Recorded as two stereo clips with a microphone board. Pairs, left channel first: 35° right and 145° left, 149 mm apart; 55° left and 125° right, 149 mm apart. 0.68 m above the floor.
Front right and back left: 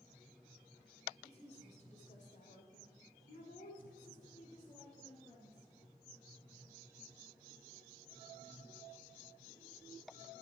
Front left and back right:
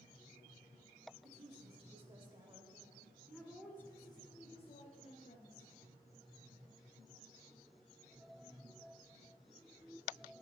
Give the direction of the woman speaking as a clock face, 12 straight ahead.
3 o'clock.